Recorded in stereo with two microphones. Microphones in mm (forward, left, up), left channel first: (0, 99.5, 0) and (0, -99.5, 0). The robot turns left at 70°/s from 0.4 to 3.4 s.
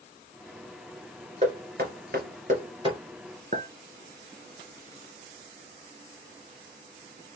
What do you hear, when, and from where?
1.4 s knocking: 35° right (ahead or behind), 1.7 m; by 3.0 s 20° right (ahead or behind), 1.7 m
3.5 s a clink: 45° right (ahead or behind), 1.1 m